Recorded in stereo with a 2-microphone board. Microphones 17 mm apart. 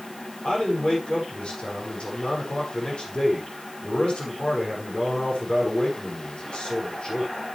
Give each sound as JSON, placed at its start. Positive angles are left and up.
{"t": 0.4, "sound": "a man speaking", "side_deg": 75, "distance_m": 5.5}